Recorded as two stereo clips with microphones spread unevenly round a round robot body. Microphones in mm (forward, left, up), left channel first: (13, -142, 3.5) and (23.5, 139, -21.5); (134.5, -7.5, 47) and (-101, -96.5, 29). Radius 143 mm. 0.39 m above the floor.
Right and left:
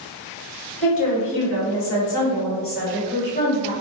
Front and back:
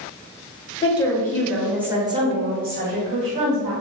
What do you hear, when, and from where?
0.8 s a woman speaking: 50° right, 1.8 m; by 3.7 s 155° right, 1.9 m